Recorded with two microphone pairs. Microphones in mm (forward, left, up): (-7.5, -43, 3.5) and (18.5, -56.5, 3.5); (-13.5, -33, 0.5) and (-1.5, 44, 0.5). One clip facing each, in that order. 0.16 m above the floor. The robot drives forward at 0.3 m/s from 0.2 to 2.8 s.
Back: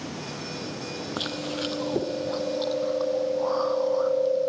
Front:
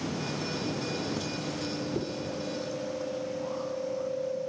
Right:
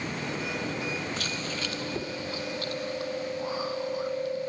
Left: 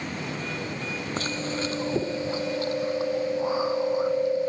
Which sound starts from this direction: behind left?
Chewing, at 1.2 s.